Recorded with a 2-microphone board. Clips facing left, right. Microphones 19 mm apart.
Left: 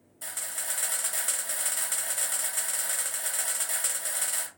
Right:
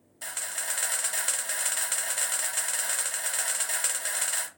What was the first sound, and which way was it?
A camera shutter, 30° right (ahead or behind).